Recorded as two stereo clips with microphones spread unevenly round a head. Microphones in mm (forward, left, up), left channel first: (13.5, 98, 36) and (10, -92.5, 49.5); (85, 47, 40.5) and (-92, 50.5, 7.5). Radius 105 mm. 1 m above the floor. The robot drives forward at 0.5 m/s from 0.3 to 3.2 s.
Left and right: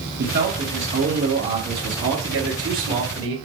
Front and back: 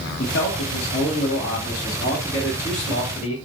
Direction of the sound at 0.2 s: 55° right.